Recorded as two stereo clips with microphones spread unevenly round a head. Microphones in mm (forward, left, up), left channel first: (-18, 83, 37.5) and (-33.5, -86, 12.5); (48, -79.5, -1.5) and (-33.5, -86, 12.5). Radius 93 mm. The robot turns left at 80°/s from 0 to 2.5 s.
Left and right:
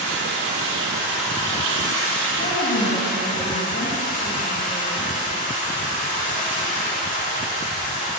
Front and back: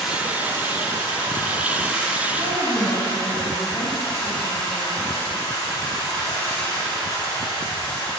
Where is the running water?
95° right, 1.4 m; by 8.2 s 65° left, 1.4 m.